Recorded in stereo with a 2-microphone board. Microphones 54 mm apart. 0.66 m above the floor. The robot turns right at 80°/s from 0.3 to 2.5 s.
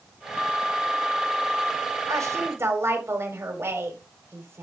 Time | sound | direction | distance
2.1 | a woman speaking | 85° right | 3.5 m